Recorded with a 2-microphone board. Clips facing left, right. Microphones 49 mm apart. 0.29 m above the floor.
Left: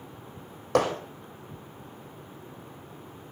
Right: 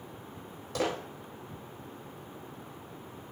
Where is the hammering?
75° left (ahead or behind), 6.5 m.